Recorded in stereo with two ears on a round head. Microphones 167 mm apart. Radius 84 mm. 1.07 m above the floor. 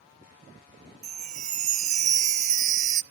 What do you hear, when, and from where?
1.0 s a chime: 40° right (ahead or behind), 0.6 m